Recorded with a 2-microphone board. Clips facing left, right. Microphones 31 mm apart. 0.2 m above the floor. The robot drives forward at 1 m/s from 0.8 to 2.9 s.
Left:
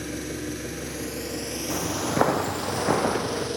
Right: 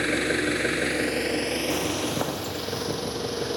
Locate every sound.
0.0 s an engine running: 65° right (ahead or behind), 1.1 m; by 3.6 s 20° right (ahead or behind), 2.5 m
1.7 s footsteps: centre (ahead or behind), 0.9 m; by 3.5 s 75° left (ahead or behind), 1.5 m